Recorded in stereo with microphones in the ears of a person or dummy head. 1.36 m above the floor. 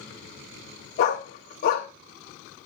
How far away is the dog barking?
About 1.8 m.